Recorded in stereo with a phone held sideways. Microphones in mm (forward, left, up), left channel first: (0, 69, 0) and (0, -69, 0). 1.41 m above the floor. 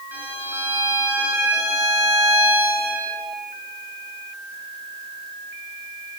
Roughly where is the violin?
Centre.